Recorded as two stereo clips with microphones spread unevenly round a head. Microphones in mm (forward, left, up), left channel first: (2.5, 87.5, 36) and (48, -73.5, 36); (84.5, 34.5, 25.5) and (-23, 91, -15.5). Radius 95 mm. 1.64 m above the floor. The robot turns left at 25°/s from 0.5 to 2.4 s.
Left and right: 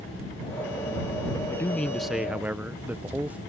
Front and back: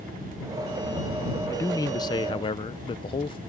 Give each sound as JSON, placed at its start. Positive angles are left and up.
{"t": 1.5, "sound": "a man speaking", "azimuth_deg": 30}